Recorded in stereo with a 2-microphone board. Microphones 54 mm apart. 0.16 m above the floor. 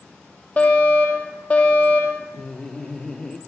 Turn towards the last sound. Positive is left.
turn(degrees=10)  # may be behind; listen again after turning